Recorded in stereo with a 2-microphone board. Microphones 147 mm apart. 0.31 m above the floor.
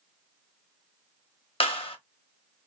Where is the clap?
40° left (ahead or behind), 0.8 m.